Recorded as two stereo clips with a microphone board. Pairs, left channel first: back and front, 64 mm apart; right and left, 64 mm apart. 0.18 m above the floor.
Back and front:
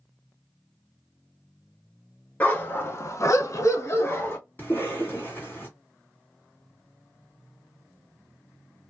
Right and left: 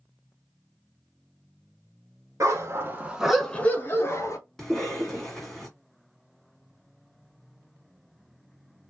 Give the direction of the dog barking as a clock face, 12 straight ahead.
8 o'clock.